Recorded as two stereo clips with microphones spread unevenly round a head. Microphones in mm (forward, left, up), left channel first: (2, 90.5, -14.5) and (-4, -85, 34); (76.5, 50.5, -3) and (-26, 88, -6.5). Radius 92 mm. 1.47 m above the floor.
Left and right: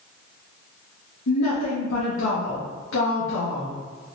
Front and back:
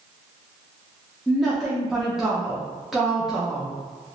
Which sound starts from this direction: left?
A woman speaking, at 1.3 s.